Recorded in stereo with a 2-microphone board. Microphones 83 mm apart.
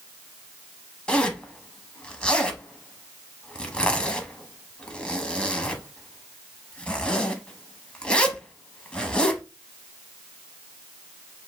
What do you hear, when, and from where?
1.1 s a zipper: 10° left (ahead or behind), 0.8 m